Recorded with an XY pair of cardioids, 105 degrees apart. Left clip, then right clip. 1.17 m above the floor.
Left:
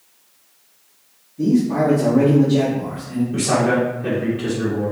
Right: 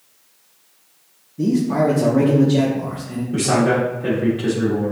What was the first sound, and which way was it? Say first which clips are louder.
A man speaking: even; 35° right.